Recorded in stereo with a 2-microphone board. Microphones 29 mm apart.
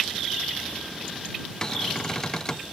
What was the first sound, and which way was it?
A cupboard door, 20° left (ahead or behind).